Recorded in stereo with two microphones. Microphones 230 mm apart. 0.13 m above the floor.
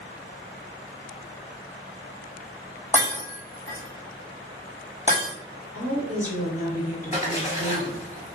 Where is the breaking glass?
30° left (ahead or behind), 1.3 m.